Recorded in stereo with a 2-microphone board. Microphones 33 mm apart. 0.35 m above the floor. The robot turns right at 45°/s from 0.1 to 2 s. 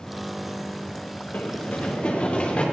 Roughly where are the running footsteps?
Left.